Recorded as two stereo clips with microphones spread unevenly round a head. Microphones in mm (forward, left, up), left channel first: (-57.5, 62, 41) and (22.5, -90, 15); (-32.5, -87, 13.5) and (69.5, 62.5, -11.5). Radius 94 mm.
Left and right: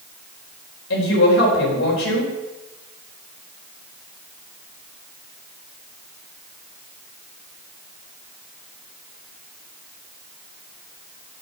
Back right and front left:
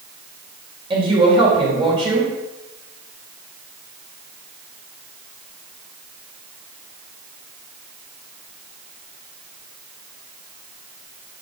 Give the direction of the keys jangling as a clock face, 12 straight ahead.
I don't hear keys jangling.